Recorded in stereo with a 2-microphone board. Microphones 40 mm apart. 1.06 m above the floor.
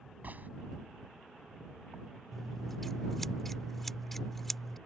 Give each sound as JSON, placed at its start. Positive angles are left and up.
{"t": 0.2, "sound": "a gunshot", "side_deg": -50}
{"t": 2.3, "sound": "scissors", "side_deg": 10}